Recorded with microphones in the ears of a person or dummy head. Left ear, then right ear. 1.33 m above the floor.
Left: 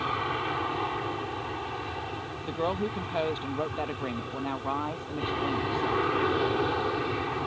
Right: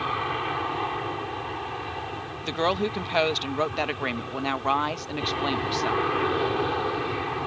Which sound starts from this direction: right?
A woman speaking, at 2.4 s.